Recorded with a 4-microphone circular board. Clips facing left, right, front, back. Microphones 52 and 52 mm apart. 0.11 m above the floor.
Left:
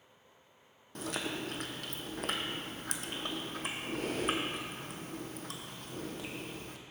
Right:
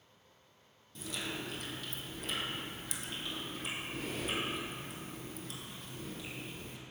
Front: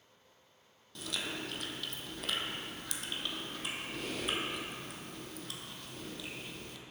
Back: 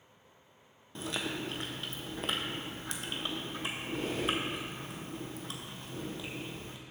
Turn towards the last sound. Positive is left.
turn(degrees=120)